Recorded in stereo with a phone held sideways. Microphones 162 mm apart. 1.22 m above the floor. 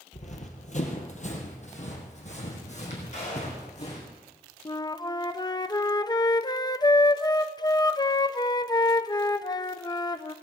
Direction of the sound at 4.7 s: 25° left (ahead or behind).